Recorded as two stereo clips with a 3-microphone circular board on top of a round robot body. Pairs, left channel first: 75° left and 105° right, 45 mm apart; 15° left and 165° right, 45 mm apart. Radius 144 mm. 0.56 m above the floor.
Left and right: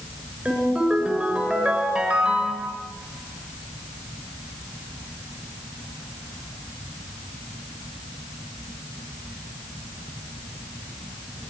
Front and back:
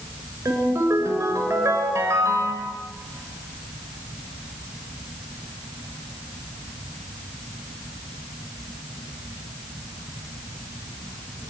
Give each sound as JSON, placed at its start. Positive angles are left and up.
{"t": 0.5, "sound": "a ringtone", "azimuth_deg": -175, "distance_m": 7.0}